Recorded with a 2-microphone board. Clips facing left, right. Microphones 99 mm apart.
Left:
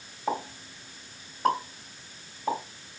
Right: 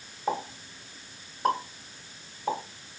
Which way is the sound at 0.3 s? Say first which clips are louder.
Even; centre (ahead or behind).